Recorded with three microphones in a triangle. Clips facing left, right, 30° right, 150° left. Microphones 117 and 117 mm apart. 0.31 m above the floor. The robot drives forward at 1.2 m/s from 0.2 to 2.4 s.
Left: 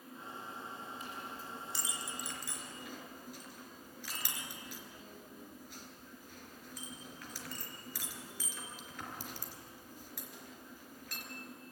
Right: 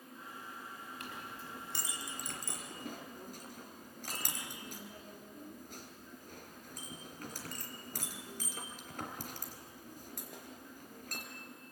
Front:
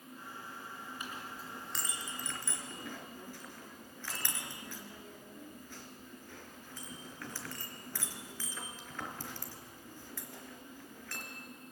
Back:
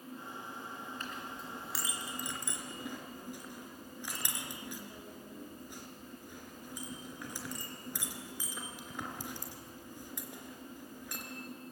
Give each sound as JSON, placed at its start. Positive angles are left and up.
{"t": 1.0, "sound": "a clink", "azimuth_deg": -105, "distance_m": 2.5}